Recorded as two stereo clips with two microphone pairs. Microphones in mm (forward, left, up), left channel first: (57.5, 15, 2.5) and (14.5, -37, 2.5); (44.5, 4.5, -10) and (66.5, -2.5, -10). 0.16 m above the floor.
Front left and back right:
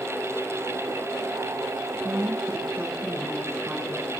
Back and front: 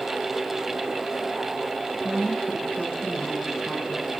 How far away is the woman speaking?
About 3 m.